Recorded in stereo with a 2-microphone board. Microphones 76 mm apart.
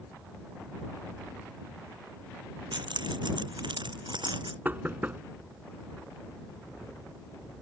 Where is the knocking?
25° right (ahead or behind).